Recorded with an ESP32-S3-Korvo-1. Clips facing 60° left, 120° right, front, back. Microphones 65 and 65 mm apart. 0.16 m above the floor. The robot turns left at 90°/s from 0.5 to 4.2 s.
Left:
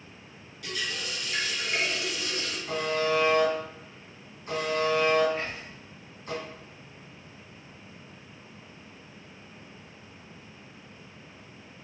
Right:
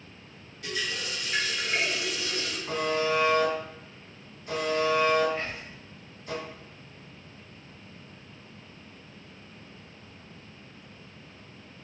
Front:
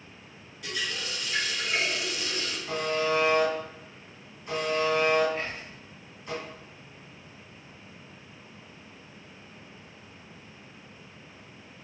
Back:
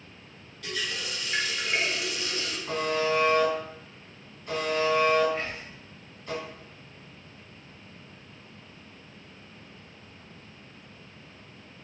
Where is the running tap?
70° right, 1.6 m; by 2.6 s 115° left, 1.6 m.